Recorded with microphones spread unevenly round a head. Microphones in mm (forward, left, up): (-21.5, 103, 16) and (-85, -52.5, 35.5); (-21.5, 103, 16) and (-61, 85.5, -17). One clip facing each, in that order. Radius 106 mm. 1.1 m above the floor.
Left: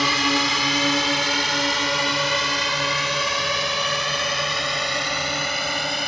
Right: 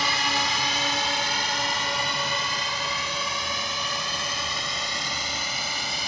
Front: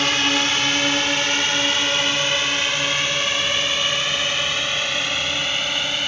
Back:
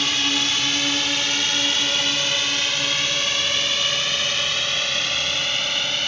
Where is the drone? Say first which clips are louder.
Left 6 dB, front 3 dB; 60° left; by 6.1 s 100° left.